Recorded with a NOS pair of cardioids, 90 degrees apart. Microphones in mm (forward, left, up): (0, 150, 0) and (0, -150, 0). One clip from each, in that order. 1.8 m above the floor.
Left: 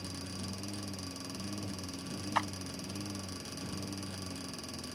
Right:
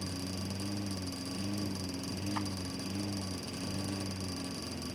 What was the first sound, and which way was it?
A lawn mower, 35° right.